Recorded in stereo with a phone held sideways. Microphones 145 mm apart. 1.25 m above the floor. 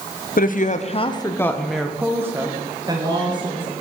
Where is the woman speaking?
65° left (ahead or behind), 0.8 m; by 3.7 s 30° right (ahead or behind), 1.9 m.